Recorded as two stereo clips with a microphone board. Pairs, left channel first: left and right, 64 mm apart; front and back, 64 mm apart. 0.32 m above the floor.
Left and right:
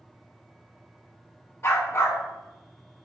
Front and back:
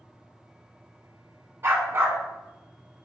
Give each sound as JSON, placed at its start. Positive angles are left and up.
{"t": 1.6, "sound": "a dog barking", "azimuth_deg": 130, "distance_m": 0.9}